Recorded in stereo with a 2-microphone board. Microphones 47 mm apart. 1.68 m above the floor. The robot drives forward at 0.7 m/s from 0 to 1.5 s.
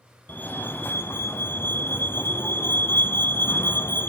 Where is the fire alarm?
40° left (ahead or behind), 1.8 m; by 4.1 s 55° left (ahead or behind), 1.4 m.